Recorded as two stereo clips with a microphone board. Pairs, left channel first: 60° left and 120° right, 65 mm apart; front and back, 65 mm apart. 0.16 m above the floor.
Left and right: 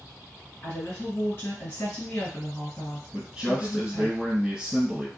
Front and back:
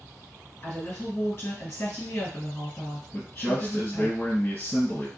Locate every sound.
0.6 s a woman speaking: 30° left, 2.0 m
3.1 s a man speaking: 45° right, 2.0 m